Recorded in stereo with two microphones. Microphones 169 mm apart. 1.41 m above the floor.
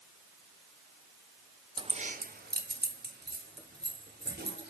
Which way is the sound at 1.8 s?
25° right (ahead or behind).